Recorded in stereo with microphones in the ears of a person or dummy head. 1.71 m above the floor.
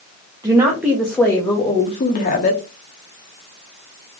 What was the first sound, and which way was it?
A woman speaking, 20° right (ahead or behind).